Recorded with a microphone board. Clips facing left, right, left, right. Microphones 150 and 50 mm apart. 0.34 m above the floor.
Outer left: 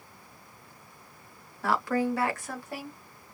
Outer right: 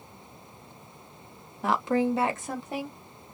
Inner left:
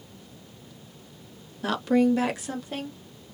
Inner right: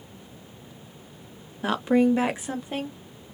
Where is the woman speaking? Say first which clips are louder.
Outer right 2 dB, inner right 1 dB; 20° right (ahead or behind), 0.9 m.